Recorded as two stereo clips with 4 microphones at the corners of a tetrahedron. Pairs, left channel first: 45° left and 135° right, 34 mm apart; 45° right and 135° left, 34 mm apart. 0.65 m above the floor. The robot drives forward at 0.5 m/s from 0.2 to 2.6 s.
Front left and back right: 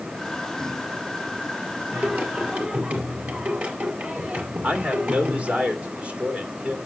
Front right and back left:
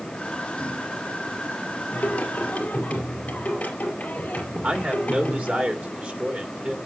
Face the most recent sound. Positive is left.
turn(degrees=175)